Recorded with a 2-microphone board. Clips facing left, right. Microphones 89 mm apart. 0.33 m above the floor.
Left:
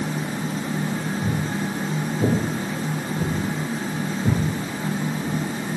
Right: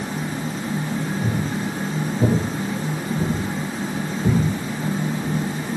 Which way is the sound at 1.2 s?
30° right (ahead or behind).